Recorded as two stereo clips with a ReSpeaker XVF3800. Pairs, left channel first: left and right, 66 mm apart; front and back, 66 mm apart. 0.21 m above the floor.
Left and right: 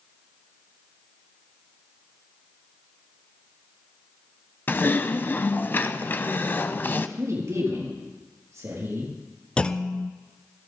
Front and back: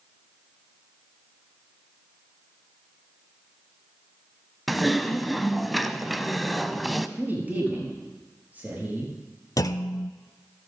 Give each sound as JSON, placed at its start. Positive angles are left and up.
{"t": 4.7, "sound": "typing on a keyboard", "azimuth_deg": 90, "distance_m": 0.7}
{"t": 7.2, "sound": "a man speaking", "azimuth_deg": -120, "distance_m": 5.5}
{"t": 9.6, "sound": "a clunk", "azimuth_deg": 15, "distance_m": 0.7}